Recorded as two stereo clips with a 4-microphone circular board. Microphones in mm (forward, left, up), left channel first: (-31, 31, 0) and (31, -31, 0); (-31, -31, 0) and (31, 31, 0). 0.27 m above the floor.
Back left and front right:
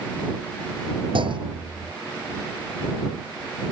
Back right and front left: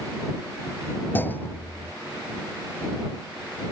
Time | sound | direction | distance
1.1 | a clunk | 65° right | ?